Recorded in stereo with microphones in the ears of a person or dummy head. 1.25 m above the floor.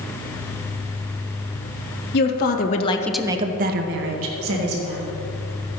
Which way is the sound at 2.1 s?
55° left (ahead or behind).